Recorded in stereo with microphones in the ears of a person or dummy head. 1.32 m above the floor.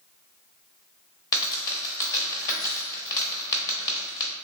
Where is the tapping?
I don't hear tapping.